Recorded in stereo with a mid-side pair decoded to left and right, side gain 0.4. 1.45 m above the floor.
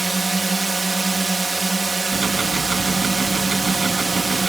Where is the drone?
15° right.